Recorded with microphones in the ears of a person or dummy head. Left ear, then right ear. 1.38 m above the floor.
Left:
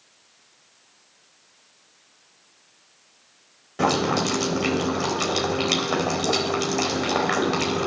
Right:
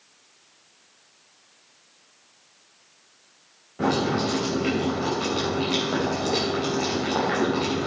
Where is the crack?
No crack in this recording.